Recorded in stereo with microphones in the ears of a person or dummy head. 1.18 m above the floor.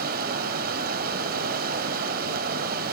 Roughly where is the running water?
Right.